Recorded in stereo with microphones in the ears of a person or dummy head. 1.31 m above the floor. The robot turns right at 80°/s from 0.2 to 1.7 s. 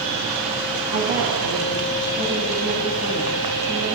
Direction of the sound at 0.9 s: 90° right.